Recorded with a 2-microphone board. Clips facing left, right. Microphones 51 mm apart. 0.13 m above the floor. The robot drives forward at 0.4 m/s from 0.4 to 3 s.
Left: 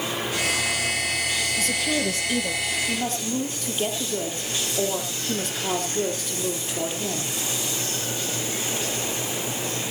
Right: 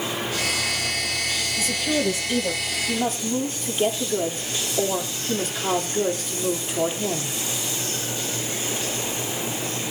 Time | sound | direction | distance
1.6 | a woman speaking | 10° right (ahead or behind) | 2 m